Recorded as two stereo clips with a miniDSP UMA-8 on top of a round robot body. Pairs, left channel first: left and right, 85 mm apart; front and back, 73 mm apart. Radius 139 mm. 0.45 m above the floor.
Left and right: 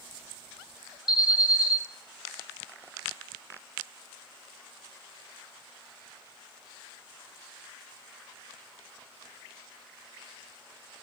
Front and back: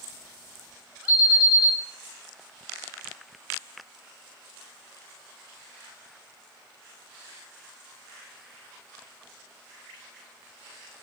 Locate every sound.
1.1 s an alarm: 50° left, 1.5 m